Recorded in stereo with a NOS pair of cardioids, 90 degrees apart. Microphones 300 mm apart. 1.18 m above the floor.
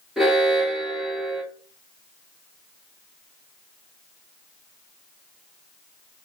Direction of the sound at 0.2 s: Straight ahead.